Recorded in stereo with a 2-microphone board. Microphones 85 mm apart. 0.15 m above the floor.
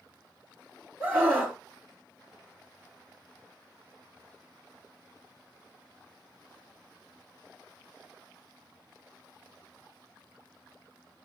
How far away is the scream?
About 5.5 m.